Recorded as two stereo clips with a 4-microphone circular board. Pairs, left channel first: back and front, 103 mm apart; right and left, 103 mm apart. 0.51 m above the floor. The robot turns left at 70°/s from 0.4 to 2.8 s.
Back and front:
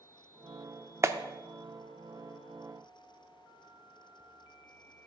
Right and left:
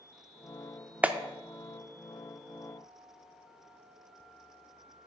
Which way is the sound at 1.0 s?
25° left.